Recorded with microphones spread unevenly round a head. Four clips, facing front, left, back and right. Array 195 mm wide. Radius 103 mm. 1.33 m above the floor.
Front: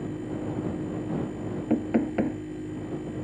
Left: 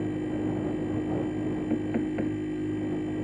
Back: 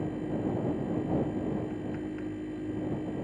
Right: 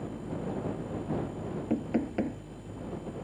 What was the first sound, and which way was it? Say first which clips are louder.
A machine running: left 8 dB, even; 95° left.